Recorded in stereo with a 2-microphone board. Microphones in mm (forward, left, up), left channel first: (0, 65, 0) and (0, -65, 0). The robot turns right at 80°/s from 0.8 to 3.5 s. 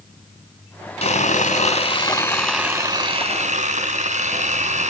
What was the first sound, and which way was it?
Sawing, 65° left.